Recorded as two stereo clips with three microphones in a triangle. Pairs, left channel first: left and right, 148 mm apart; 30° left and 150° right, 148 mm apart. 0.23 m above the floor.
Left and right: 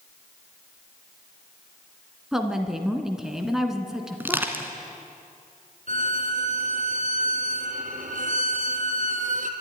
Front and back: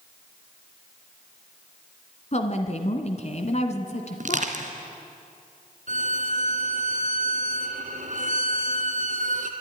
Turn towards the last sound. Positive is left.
turn(degrees=-120)